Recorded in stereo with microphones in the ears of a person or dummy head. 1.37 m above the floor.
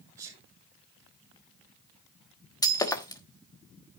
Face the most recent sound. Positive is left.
turn(degrees=20)  # may be behind; listen again after turning